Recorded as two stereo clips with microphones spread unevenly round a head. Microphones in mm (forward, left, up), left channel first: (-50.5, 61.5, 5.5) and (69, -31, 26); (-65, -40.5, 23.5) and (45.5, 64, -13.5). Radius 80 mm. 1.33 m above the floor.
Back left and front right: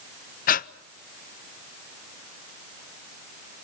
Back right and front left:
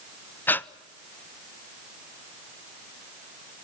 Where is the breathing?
140° left, 0.5 m.